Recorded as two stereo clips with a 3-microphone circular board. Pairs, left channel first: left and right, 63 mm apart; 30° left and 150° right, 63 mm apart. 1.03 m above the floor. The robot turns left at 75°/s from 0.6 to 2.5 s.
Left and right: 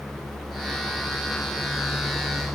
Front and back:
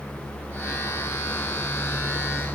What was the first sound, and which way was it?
Only background noise.